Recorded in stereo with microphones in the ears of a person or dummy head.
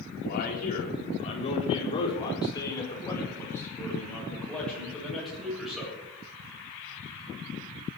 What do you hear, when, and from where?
0.2 s a man speaking: 45° left (ahead or behind), 4 m; by 6.0 s 5° right (ahead or behind), 7.5 m